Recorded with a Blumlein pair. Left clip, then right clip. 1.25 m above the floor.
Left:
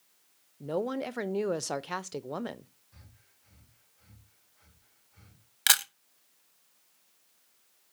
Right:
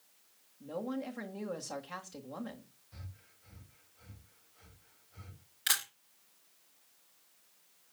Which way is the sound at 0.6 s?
55° left.